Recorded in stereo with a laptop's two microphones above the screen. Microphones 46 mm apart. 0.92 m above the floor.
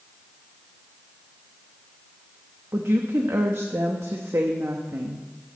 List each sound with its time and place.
2.7 s a woman speaking: 70° right (ahead or behind), 1.0 m